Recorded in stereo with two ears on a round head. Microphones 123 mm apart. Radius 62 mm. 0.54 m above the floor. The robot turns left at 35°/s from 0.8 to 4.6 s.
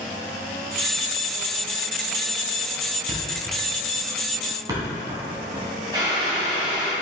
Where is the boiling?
30° right (ahead or behind), 2 m.